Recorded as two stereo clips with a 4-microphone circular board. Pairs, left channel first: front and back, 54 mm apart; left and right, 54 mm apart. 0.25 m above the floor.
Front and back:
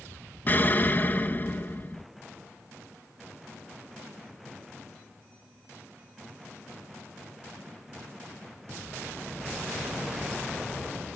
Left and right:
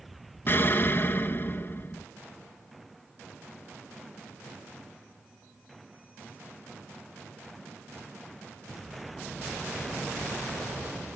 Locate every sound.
0.5 s an explosion: 50° left, 0.6 m